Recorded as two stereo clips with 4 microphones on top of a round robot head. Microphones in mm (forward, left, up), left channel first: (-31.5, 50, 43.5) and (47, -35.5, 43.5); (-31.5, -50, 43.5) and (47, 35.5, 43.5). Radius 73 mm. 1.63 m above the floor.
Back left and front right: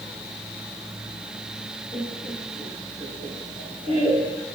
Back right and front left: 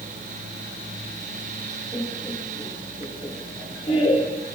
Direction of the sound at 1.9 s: 65° right.